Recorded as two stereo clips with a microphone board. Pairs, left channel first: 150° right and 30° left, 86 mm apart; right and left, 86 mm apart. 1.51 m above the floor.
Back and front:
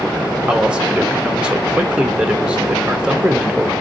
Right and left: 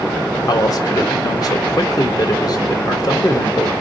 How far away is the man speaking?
About 0.9 m.